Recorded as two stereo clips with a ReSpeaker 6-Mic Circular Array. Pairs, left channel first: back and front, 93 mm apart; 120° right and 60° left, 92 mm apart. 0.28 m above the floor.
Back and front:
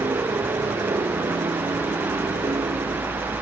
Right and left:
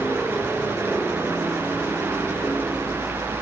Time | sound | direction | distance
0.0 | a helicopter | 45° right | ?